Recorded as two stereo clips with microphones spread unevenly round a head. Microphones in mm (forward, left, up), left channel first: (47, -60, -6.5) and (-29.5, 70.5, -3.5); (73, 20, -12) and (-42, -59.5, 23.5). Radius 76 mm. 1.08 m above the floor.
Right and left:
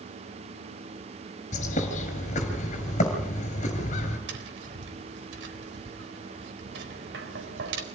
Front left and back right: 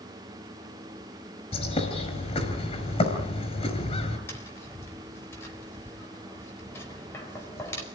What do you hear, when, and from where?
1.5 s a bird: 15° right, 5 m
4.3 s tapping: 110° left, 4 m